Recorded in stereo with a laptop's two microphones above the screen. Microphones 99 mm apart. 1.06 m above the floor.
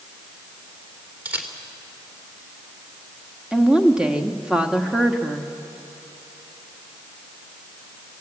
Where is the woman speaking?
10° right (ahead or behind), 1.6 m.